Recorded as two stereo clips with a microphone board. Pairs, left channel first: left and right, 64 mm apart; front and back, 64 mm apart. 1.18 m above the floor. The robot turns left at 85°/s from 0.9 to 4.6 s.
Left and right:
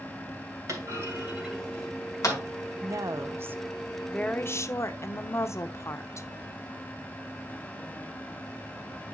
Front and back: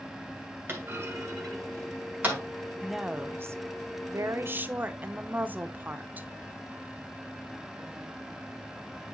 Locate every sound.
0.7 s a clunk: 125° right, 2.5 m; by 2.4 s 110° left, 2.5 m
2.8 s a woman speaking: 85° right, 0.7 m; by 6.3 s 125° left, 0.7 m